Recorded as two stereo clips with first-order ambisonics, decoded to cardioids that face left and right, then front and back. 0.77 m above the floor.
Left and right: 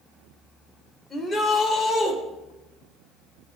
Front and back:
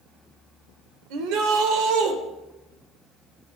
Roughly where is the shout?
Behind.